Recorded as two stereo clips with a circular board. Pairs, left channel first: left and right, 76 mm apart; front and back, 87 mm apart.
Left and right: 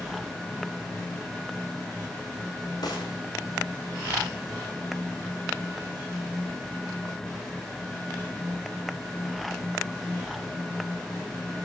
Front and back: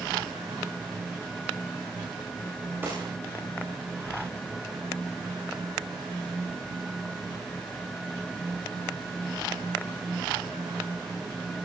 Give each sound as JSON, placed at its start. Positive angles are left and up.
{"t": 2.8, "sound": "a gunshot", "azimuth_deg": 115, "distance_m": 9.5}